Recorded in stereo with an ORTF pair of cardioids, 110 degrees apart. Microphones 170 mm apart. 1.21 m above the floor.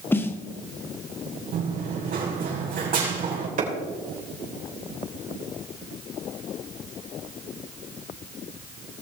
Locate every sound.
0.1 s a snare drum: 15° left, 0.7 m
1.5 s running footsteps: 55° right, 4 m
3.6 s a clap: 50° right, 3.5 m